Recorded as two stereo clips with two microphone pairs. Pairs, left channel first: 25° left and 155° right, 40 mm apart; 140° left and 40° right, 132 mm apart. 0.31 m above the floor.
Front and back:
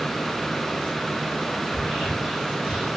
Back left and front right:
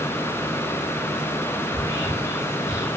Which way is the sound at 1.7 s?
165° left.